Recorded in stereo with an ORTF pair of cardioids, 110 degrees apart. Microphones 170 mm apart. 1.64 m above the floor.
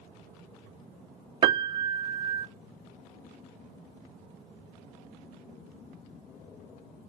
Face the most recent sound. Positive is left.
turn(degrees=-25)